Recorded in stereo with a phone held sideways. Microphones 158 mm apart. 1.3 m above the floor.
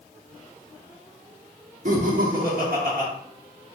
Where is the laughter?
60° right (ahead or behind), 1.1 m; by 3.1 s 70° right (ahead or behind), 1.5 m.